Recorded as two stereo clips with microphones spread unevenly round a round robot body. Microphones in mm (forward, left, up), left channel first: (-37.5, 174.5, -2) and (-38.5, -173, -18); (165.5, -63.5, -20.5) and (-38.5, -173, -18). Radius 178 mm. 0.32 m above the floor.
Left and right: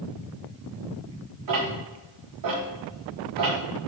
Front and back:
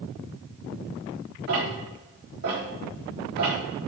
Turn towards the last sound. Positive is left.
turn(degrees=-130)